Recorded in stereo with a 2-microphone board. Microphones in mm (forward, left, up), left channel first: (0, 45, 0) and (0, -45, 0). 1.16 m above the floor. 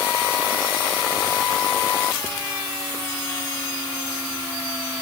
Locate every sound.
Only background noise.